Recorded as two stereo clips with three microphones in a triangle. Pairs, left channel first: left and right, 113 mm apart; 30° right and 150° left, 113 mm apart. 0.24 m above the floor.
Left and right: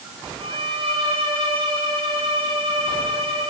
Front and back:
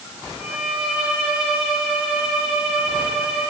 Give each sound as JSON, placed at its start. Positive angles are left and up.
{"t": 0.4, "sound": "a violin", "azimuth_deg": -125, "distance_m": 3.5}